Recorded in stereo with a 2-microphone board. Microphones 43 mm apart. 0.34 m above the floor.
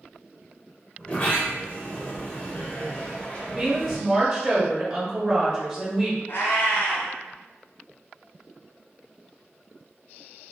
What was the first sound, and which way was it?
A sliding door, 30° left (ahead or behind).